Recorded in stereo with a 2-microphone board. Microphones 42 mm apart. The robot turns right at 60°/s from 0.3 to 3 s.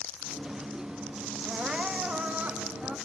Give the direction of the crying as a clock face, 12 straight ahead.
5 o'clock.